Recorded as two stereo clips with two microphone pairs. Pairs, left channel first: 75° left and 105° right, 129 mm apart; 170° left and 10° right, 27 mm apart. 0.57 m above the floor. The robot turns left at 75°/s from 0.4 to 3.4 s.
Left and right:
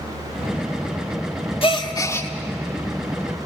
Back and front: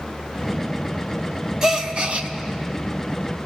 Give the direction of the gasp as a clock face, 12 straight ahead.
10 o'clock.